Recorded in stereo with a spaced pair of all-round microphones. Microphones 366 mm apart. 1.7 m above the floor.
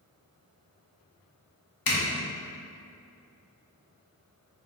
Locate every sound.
1.9 s a zipper: 70° left (ahead or behind), 0.9 m